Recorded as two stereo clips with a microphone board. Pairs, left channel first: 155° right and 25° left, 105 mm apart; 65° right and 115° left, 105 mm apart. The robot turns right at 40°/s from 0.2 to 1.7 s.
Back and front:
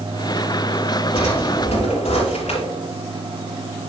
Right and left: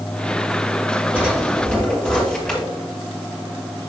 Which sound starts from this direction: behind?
A drawer, at 1.1 s.